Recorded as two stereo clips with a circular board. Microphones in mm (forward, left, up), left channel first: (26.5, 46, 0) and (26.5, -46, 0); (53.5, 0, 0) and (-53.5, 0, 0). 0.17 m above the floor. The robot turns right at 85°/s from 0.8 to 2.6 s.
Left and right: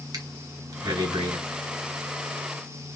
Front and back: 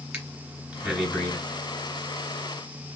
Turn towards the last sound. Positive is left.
turn(degrees=45)